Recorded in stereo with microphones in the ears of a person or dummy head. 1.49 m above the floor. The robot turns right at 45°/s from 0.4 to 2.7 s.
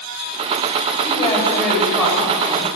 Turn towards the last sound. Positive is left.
turn(degrees=-140)